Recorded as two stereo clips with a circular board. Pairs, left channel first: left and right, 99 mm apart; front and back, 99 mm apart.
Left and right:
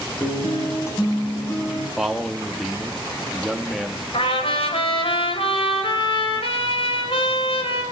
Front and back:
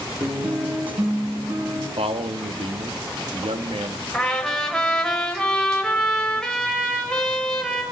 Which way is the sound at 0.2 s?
150° left.